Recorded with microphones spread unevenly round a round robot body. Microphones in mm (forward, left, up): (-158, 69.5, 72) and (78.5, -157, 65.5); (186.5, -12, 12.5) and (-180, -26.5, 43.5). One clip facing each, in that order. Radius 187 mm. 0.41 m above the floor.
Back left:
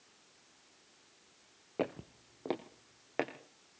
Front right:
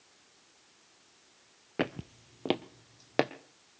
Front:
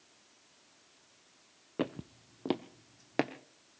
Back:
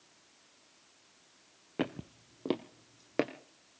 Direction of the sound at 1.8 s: 100° right.